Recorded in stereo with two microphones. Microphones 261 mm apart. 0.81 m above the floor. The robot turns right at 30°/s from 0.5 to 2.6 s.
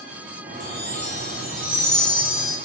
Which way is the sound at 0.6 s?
80° right.